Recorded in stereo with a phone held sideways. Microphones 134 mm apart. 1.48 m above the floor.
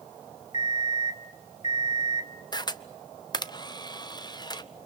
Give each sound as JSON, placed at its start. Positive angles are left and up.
{"t": 0.5, "sound": "an alarm clock", "side_deg": 55, "distance_m": 1.7}
{"t": 2.5, "sound": "a camera shutter", "side_deg": 30, "distance_m": 0.8}